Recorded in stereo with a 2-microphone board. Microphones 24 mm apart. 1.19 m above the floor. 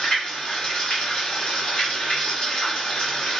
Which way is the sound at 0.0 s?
40° left (ahead or behind).